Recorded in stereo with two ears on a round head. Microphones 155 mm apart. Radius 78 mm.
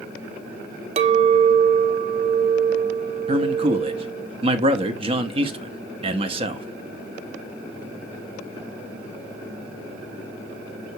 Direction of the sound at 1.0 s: 35° right (ahead or behind).